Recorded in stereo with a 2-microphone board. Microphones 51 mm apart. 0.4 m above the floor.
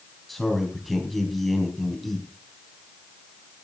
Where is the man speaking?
5° left (ahead or behind), 3.5 m.